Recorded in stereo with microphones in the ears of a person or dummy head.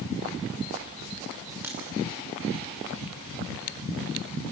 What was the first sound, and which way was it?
A crack, 10° right (ahead or behind).